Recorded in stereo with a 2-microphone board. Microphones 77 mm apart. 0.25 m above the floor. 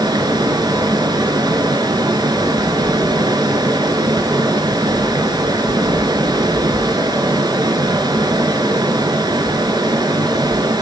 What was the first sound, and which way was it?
Running water, 65° right (ahead or behind).